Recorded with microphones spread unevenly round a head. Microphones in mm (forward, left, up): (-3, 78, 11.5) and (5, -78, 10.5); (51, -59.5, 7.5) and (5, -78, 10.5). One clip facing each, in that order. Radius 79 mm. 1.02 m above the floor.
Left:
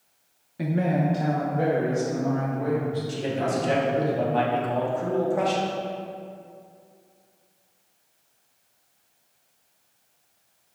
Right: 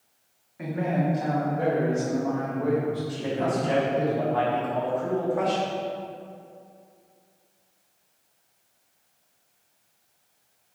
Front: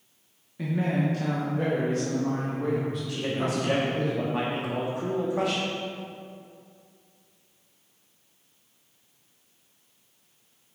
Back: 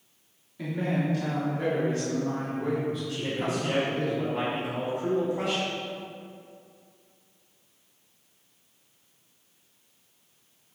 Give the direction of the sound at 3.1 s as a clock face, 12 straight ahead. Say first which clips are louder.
Even, front 1 dB; 11 o'clock.